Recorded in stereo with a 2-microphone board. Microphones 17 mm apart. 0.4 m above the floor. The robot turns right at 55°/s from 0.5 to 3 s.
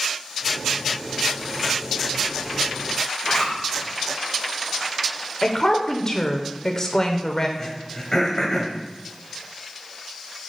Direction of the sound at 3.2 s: 60° left (ahead or behind).